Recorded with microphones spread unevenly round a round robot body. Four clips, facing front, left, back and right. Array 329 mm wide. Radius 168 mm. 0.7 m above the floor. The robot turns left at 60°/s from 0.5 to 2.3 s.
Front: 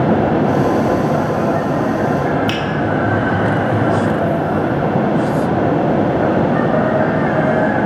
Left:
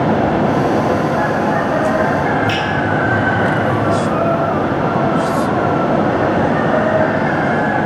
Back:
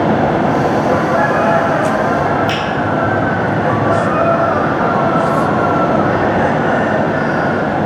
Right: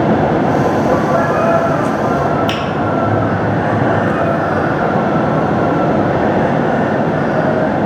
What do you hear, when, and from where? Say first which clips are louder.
2.5 s a finger snap: even, back 2 dB; 50° right, 1.0 m